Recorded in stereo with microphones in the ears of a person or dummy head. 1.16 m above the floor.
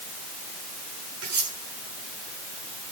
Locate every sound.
1.2 s cutlery clinking: 75° right (ahead or behind), 8.5 m